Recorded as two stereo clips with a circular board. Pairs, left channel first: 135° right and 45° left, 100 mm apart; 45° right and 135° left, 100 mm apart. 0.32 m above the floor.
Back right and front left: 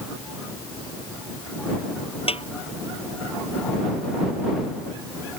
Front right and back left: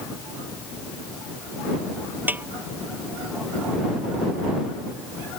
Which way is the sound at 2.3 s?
155° right.